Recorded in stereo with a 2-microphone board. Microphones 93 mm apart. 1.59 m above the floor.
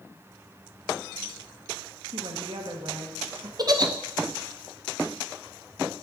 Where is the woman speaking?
70° right (ahead or behind), 1.4 m.